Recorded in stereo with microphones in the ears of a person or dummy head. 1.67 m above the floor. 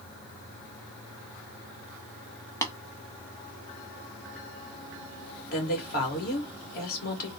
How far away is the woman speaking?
About 2.5 m.